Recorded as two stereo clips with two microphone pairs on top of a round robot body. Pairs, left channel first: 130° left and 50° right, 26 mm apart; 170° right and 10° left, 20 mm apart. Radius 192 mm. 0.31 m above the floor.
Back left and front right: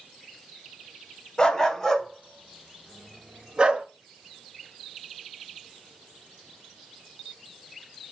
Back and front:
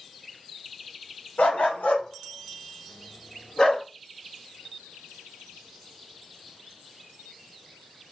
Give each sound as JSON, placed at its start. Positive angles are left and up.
{"t": 1.4, "sound": "a dog barking", "azimuth_deg": -170, "distance_m": 1.2}